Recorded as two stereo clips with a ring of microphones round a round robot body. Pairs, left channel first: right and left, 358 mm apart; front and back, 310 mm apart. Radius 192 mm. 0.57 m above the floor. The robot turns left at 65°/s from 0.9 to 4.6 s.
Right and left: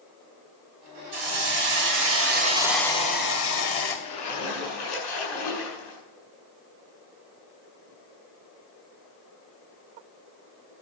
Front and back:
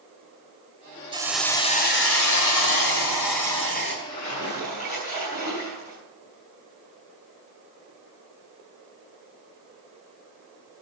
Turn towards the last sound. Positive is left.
turn(degrees=-70)